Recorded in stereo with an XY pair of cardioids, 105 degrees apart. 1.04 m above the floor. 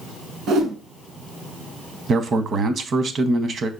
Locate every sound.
0.5 s a whoosh: 70° right, 1.2 m
2.1 s a man speaking: 50° right, 0.8 m